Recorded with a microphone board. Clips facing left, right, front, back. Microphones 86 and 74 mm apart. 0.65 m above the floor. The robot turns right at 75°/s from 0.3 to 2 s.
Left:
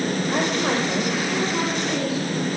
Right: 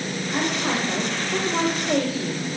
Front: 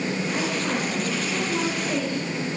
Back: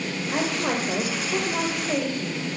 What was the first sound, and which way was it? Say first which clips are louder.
A woman speaking: even, back 5 dB; 125° left.